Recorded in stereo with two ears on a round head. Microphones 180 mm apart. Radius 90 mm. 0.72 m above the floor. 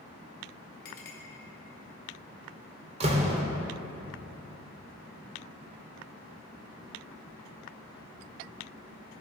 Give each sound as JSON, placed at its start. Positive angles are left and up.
{"t": 0.8, "sound": "a clink", "side_deg": 55, "distance_m": 2.0}
{"t": 3.0, "sound": "a door slam", "side_deg": -35, "distance_m": 1.4}